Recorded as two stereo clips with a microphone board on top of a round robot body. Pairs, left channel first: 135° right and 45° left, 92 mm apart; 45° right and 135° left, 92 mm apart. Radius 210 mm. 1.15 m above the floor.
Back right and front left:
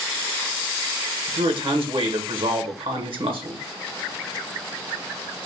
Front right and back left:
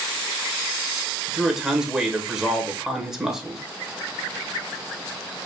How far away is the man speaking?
About 1.4 m.